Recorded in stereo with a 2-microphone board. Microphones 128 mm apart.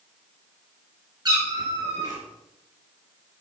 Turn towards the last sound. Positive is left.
turn(degrees=-35)  # may be behind; listen again after turning